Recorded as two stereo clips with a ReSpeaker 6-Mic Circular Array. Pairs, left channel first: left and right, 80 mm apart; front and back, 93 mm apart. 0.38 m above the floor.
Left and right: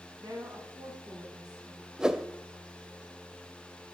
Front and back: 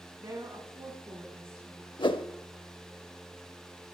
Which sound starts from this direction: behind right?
A woman speaking, at 0.2 s.